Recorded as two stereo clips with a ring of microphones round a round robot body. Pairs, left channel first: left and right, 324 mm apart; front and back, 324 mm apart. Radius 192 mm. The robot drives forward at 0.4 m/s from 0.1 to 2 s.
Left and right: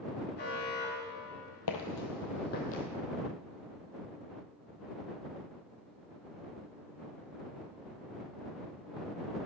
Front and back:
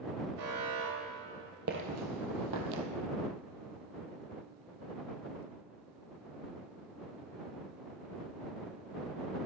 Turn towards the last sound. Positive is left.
turn(degrees=160)